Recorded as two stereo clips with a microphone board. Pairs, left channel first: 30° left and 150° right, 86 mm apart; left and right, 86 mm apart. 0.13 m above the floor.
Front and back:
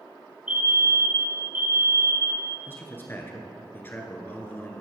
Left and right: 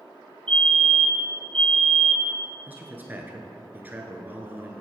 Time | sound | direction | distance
0.5 | a fire alarm | 150° left | 2 m
2.7 | a man speaking | 30° right | 1.6 m